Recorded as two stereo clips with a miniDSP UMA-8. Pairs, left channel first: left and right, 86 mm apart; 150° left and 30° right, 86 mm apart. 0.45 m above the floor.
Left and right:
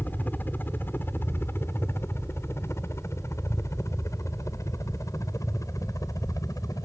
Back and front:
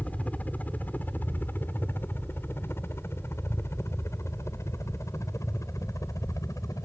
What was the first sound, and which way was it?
A helicopter, 110° left.